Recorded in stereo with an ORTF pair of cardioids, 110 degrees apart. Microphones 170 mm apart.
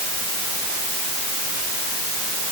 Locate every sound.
Only background noise.